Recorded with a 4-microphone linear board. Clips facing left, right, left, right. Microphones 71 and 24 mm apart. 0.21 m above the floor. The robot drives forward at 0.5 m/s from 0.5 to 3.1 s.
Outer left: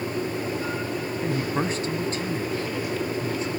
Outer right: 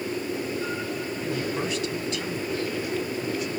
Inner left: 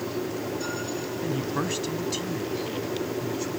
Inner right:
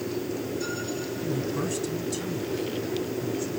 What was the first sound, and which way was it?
A man speaking, 35° left (ahead or behind).